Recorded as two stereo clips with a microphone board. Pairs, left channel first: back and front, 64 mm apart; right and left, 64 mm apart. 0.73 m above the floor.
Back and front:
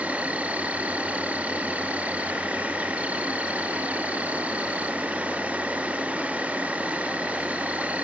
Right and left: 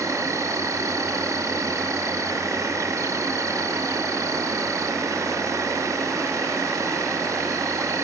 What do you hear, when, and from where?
0.0 s an insect: 65° left, 0.8 m